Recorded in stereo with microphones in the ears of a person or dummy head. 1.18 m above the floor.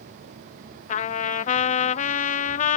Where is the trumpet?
45° left (ahead or behind).